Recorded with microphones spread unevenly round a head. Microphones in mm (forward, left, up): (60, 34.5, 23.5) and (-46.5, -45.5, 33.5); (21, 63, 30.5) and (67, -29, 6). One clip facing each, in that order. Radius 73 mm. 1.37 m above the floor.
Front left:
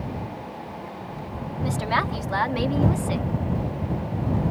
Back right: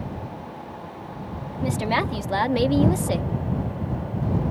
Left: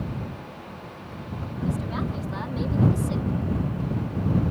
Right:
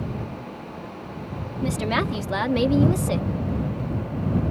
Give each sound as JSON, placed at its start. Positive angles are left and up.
{"t": 1.6, "sound": "a woman speaking", "azimuth_deg": -75}